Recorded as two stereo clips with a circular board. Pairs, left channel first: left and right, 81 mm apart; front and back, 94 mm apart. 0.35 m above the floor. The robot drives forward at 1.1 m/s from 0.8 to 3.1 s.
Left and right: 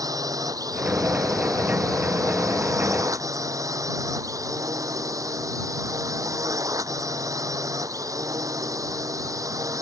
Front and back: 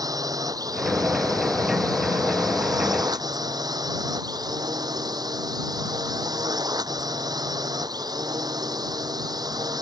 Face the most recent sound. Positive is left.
turn(degrees=-135)